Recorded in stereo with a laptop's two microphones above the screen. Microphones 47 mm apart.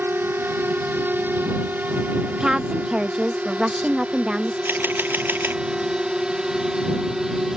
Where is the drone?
55° right (ahead or behind); by 7.6 s 10° right (ahead or behind).